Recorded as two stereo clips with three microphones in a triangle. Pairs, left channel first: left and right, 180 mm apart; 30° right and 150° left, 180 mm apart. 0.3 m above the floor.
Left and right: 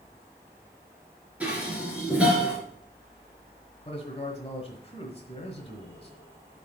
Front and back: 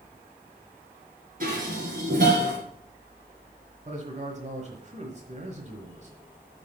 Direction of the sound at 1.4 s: 175° right.